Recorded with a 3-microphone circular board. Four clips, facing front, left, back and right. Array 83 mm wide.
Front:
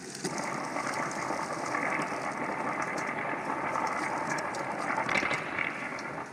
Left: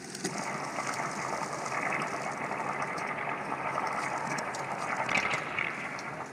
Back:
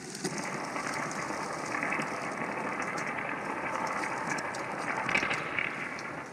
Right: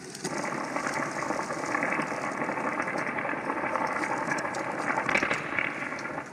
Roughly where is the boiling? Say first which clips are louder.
Right 4 dB, front 2 dB; right.